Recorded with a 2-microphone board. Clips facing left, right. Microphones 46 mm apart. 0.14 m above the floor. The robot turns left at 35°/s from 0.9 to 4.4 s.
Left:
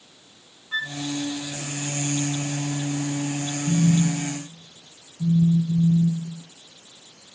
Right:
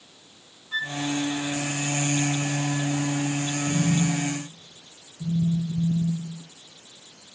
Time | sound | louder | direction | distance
0.7 | a flute | left 1 dB | 15° left (ahead or behind) | 0.7 m
3.7 | a phone buzzing | left 4 dB | 65° left (ahead or behind) | 3.5 m